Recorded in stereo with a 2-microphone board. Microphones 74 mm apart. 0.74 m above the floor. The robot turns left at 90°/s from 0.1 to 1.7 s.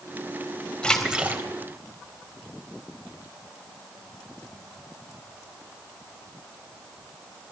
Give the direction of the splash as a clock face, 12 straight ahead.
12 o'clock.